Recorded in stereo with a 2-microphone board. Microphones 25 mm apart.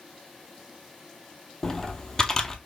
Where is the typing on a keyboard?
20° left (ahead or behind), 0.7 m.